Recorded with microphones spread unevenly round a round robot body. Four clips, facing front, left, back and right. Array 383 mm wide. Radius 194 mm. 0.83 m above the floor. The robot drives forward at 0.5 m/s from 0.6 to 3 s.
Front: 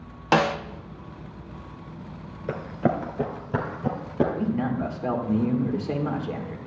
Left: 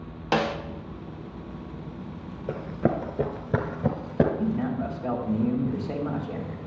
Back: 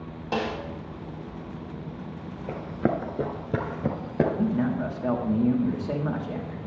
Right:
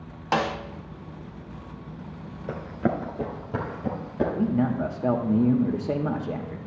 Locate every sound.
0.3 s a snare drum: 10° right, 0.6 m
2.5 s running footsteps: 15° right, 0.8 m; by 4.2 s 115° left, 1.1 m
4.3 s a man speaking: 100° right, 1.2 m